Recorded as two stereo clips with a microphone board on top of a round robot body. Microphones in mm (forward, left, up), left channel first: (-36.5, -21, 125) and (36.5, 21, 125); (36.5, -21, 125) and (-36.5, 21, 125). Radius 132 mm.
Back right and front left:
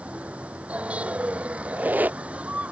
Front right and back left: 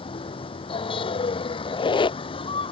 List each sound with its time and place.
0.0 s a vehicle: 45° right
1.6 s a squeak: 40° right